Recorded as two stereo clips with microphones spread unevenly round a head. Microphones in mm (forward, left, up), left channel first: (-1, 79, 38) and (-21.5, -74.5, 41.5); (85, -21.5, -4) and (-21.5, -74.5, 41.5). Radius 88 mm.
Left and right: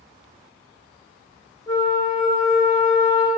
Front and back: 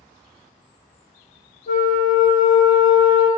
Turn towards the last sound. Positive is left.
turn(degrees=10)